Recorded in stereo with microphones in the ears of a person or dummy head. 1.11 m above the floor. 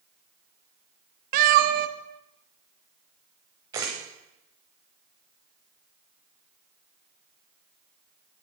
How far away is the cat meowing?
About 0.6 m.